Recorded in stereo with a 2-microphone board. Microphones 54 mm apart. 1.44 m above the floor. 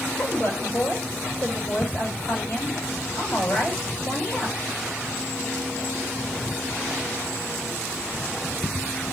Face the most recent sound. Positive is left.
turn(degrees=50)  # may be behind; listen again after turning